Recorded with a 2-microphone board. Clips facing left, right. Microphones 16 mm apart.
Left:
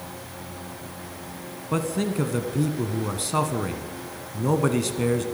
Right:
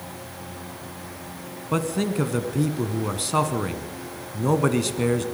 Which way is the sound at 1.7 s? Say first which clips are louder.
Right 1 dB; 10° right (ahead or behind).